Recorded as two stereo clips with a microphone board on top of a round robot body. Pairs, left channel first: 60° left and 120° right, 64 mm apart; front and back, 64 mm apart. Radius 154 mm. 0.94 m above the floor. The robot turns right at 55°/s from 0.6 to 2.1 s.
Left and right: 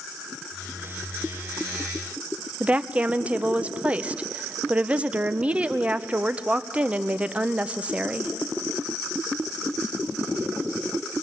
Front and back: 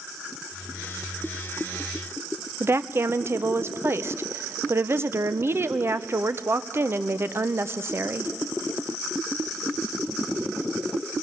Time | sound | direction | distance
2.6 | a woman speaking | straight behind | 0.8 m